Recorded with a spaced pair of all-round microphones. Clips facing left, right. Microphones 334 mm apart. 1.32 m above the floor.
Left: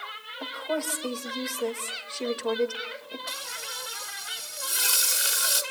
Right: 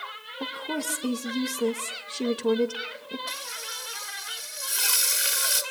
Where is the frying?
45° left (ahead or behind), 2.5 m.